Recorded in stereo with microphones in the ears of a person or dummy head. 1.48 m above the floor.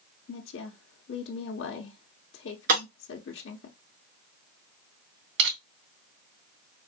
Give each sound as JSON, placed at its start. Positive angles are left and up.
{"t": 0.3, "sound": "a woman speaking", "side_deg": 70, "distance_m": 0.7}
{"t": 2.7, "sound": "breaking glass", "side_deg": -55, "distance_m": 2.5}
{"t": 5.4, "sound": "crushing", "side_deg": -70, "distance_m": 3.5}